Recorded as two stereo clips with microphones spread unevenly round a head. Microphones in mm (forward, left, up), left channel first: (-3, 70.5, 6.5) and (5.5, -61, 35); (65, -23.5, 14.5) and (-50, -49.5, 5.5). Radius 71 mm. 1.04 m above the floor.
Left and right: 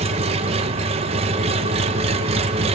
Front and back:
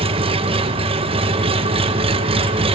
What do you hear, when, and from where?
0.0 s an engine running: 135° right, 0.8 m